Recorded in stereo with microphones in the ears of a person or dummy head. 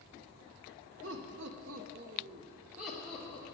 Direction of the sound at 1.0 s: 65° right (ahead or behind).